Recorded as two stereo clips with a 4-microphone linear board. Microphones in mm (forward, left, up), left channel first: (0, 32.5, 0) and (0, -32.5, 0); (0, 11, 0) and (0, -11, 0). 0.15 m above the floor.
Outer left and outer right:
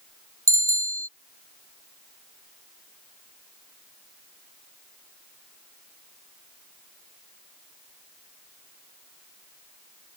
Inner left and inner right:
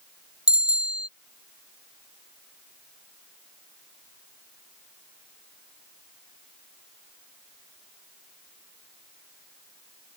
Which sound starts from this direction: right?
A bicycle bell, at 0.5 s.